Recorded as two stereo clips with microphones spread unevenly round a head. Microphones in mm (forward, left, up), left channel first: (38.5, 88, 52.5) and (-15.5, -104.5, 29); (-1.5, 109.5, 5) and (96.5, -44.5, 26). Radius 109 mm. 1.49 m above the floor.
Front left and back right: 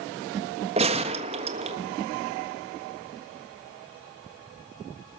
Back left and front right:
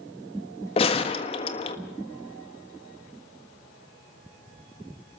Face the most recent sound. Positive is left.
turn(degrees=-170)